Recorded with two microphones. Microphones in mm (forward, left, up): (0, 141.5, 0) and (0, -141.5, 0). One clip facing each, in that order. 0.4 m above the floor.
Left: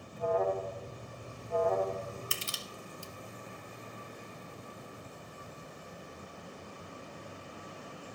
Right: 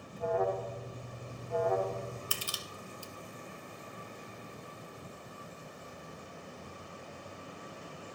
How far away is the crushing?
About 0.9 m.